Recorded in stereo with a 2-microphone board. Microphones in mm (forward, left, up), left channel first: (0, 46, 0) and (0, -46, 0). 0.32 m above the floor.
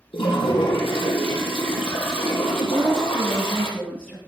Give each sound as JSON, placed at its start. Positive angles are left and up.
{"t": 0.1, "sound": "a toilet flushing", "side_deg": 75, "distance_m": 3.0}
{"t": 2.7, "sound": "a woman speaking", "side_deg": 5, "distance_m": 5.0}